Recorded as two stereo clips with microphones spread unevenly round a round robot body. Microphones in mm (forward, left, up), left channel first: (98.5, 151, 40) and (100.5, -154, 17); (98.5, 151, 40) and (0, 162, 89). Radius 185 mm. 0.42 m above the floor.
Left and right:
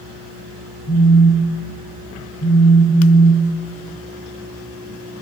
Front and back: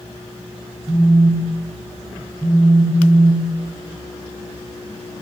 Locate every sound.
0.9 s a phone buzzing: 35° left, 6.5 m